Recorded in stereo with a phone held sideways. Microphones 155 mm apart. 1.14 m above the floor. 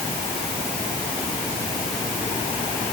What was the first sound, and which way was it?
Only background noise.